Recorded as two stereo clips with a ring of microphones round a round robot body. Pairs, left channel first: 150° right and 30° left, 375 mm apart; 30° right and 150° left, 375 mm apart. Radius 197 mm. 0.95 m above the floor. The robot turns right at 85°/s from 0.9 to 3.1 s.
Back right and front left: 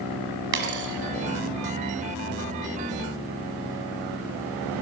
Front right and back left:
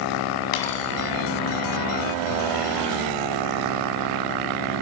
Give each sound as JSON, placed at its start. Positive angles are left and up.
{"t": 0.5, "sound": "a dropped coin", "azimuth_deg": -30, "distance_m": 4.0}